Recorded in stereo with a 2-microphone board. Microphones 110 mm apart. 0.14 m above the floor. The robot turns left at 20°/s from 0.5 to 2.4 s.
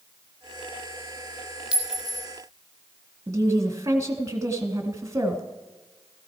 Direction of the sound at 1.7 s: 10° right (ahead or behind).